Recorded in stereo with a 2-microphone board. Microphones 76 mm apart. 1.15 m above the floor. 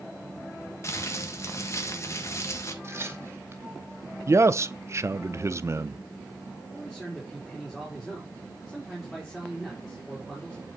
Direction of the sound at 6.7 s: 5° left (ahead or behind).